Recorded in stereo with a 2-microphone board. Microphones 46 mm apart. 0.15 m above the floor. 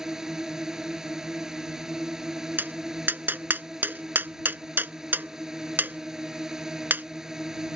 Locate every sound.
0.0 s a drone: 10° right (ahead or behind)
2.6 s tapping: 45° right (ahead or behind)